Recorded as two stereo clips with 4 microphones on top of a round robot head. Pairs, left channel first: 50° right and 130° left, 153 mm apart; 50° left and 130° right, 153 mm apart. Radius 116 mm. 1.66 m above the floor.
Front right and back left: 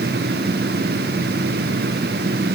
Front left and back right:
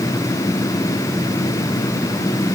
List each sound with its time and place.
Only background noise.